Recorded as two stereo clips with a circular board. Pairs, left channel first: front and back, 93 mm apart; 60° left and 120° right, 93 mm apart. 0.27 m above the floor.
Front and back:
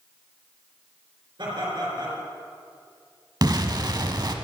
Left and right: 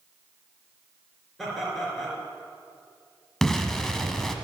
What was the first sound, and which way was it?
Laughter, 145° left.